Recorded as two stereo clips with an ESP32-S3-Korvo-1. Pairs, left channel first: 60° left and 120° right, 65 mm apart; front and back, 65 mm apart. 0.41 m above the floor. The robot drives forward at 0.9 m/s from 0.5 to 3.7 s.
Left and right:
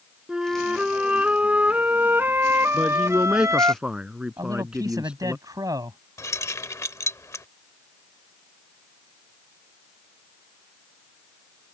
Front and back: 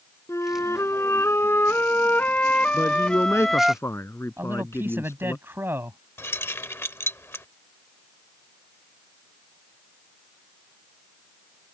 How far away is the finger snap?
No finger snap in this recording.